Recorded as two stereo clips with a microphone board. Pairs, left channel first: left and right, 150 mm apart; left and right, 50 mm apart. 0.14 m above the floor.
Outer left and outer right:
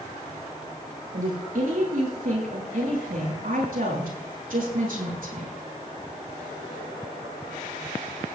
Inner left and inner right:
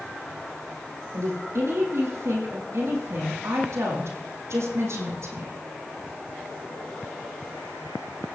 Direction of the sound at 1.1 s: 70° right (ahead or behind).